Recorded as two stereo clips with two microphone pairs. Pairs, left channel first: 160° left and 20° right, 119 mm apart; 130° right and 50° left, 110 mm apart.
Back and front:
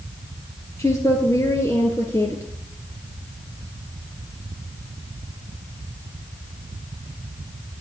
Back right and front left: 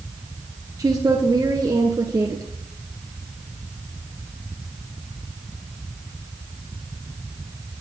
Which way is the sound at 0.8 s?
100° left.